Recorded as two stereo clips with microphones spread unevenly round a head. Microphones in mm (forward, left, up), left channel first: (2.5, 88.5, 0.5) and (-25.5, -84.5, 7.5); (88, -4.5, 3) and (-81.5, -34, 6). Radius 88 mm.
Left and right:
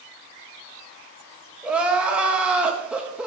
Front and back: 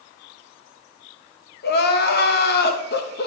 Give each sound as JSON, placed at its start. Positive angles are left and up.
{"t": 1.6, "sound": "crying", "azimuth_deg": -15, "distance_m": 1.0}